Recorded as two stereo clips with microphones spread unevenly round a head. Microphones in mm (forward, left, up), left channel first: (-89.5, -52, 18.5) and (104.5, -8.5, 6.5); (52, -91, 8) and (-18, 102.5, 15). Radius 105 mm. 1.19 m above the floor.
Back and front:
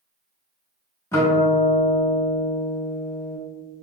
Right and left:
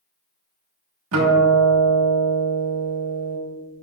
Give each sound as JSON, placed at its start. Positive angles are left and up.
{"t": 1.1, "sound": "a guitar", "azimuth_deg": 115, "distance_m": 1.3}